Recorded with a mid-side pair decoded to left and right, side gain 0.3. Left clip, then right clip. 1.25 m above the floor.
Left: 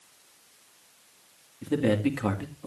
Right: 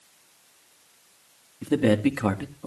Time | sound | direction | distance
1.6 | a man speaking | 55° right | 2.5 m